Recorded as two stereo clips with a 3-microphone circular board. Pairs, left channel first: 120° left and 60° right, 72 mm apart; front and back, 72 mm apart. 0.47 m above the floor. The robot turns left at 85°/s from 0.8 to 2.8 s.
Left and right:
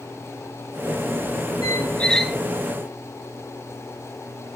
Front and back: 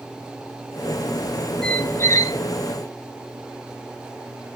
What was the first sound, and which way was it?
A squeak, 80° left.